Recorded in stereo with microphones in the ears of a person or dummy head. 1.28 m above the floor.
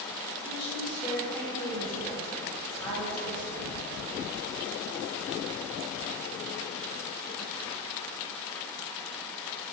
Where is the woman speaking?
25° left (ahead or behind), 4 m.